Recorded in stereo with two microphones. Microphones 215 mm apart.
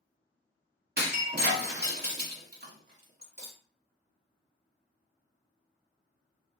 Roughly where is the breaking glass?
Right.